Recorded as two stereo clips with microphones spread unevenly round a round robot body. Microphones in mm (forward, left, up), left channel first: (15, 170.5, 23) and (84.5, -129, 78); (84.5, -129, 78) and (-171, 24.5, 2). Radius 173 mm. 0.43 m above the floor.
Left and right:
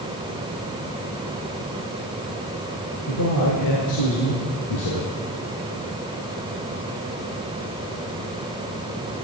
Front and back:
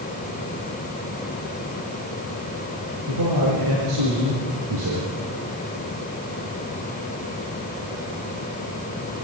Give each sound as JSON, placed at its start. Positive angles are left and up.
{"t": 3.1, "sound": "a man speaking", "azimuth_deg": 130, "distance_m": 7.0}